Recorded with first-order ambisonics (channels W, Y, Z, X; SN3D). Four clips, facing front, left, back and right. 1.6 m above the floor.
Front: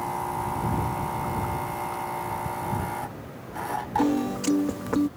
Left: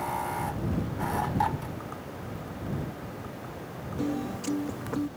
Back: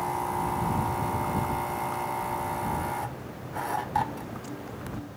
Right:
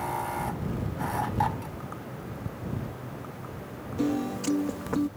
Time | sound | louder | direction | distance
2.5 | ticking | right 3 dB, even | 50° right | ?
4.0 | a piano | right 3 dB, front 8 dB | 15° right | ?